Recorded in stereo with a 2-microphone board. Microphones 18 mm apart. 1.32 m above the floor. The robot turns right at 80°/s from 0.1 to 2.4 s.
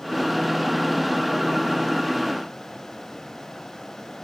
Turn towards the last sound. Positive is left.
No sound to turn to.